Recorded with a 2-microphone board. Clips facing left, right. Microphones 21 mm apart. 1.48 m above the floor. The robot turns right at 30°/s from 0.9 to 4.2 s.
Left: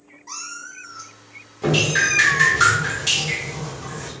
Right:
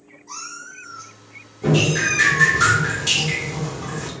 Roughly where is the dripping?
Behind left.